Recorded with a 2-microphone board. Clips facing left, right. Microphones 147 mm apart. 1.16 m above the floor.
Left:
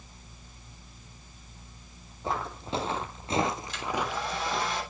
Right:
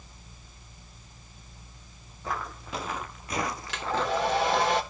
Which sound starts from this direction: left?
Footsteps, at 2.2 s.